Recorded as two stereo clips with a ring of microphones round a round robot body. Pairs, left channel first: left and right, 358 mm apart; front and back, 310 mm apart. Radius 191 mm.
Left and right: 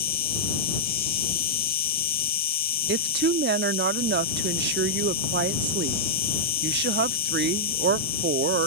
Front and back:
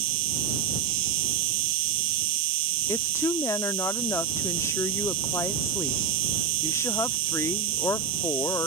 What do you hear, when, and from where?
0.0 s an insect: 155° left
2.9 s a woman speaking: 70° right